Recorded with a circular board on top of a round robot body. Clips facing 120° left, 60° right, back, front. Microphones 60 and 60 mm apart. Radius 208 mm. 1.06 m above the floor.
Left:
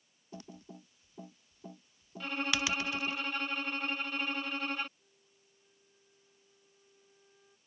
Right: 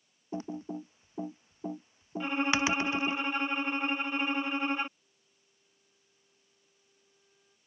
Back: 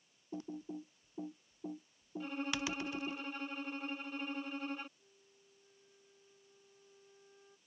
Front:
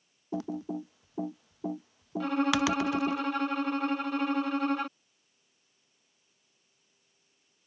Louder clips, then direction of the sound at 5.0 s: Left 3 dB, back 8 dB; 165° right.